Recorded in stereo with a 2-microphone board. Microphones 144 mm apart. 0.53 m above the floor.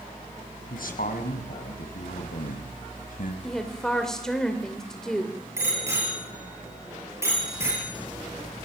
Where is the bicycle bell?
20° right (ahead or behind), 8.5 m.